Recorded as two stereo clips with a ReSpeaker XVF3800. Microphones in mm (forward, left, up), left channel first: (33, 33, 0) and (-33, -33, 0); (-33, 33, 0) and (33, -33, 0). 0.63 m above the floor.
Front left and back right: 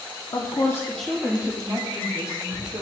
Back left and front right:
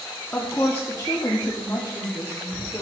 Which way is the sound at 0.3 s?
60° left.